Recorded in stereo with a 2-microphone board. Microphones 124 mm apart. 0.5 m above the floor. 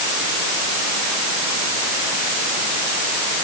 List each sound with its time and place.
Only background noise.